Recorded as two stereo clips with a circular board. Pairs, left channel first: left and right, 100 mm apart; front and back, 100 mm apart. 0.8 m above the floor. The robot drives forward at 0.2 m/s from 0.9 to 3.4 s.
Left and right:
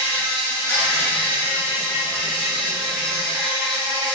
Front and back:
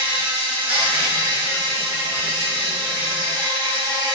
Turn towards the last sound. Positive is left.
turn(degrees=165)